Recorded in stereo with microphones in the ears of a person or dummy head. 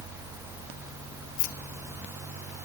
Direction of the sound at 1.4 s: 45° left (ahead or behind).